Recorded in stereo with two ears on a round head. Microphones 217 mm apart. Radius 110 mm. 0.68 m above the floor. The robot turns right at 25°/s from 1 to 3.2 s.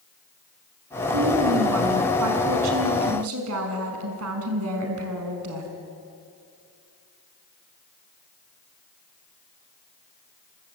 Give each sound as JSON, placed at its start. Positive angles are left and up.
{"t": 1.1, "sound": "a woman speaking", "azimuth_deg": -120, "distance_m": 5.5}